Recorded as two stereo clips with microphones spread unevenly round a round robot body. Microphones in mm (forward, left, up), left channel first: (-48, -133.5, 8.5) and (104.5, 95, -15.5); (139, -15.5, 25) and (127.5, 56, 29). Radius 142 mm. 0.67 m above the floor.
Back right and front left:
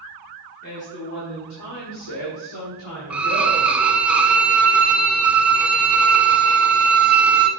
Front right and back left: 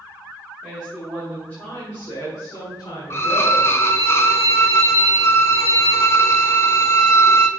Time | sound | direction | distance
0.6 | a woman speaking | 175° left | 1.5 m
3.1 | a violin | 30° right | 0.9 m